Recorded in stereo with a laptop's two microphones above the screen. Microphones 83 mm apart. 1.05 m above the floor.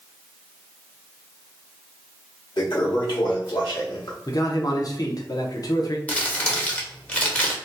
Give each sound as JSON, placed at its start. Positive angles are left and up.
{"t": 2.6, "sound": "a toilet flushing", "side_deg": 65, "distance_m": 0.9}
{"t": 4.3, "sound": "a man speaking", "side_deg": 50, "distance_m": 0.6}
{"t": 6.1, "sound": "crumpling", "side_deg": 15, "distance_m": 0.8}